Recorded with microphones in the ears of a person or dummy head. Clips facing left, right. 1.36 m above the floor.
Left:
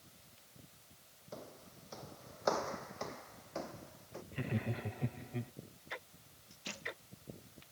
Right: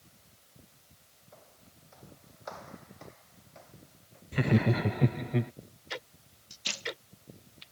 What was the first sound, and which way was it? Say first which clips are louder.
Footsteps: left 8 dB; 55° left (ahead or behind).